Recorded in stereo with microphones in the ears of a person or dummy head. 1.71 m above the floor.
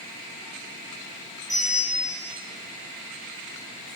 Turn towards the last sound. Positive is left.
turn(degrees=-50)  # may be behind; listen again after turning